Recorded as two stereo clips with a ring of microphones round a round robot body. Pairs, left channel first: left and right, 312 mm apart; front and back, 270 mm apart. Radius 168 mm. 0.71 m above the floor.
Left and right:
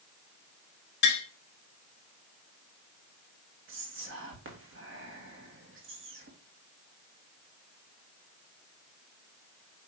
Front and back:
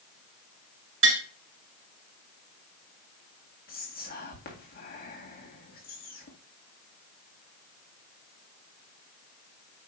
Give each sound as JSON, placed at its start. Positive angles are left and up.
{"t": 1.0, "sound": "tapping", "azimuth_deg": 145, "distance_m": 2.0}
{"t": 3.7, "sound": "whispering", "azimuth_deg": -50, "distance_m": 1.7}